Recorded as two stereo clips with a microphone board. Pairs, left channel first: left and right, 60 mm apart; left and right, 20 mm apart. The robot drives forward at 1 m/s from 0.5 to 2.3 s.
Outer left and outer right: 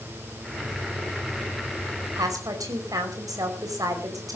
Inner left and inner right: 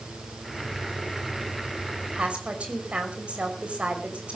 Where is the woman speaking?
80° right, 5 m.